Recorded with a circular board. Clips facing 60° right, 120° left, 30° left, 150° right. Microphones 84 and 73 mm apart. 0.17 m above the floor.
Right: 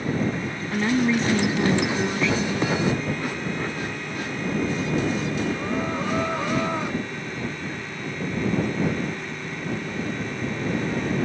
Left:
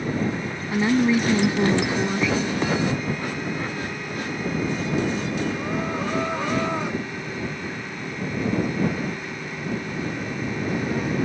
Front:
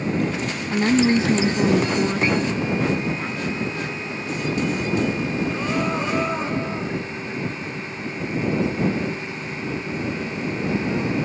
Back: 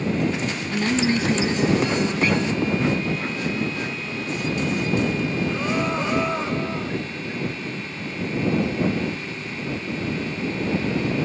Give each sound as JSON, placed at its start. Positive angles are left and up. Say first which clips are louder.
{"t": 0.7, "sound": "a woman speaking", "louder": "left 2 dB, front 5 dB", "azimuth_deg": 50}